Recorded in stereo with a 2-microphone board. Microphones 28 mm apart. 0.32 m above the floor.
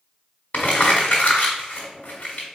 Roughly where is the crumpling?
Left.